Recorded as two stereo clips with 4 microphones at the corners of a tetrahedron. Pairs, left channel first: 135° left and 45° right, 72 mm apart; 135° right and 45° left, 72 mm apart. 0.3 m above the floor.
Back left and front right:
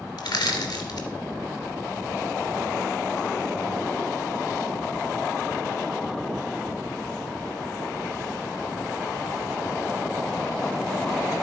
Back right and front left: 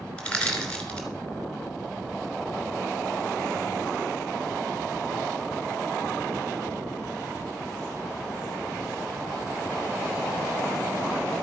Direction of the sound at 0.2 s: 150° left.